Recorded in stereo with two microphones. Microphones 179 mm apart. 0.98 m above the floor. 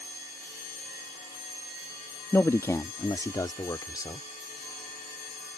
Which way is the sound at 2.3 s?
15° left (ahead or behind).